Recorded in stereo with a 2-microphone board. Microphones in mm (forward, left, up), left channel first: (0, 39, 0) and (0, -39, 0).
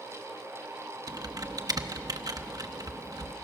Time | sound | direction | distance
1.1 | typing on a keyboard | 55° right (ahead or behind) | 0.9 m